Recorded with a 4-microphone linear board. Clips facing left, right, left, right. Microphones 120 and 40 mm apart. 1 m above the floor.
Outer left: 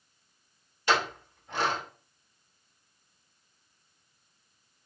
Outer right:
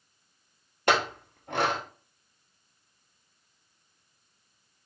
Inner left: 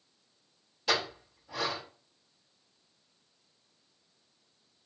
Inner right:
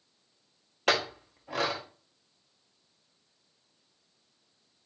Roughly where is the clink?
Right.